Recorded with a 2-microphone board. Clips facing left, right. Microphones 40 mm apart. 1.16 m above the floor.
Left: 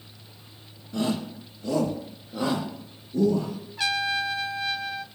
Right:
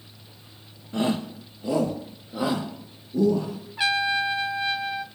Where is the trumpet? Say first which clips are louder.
Right 3 dB; 25° right (ahead or behind), 0.8 m.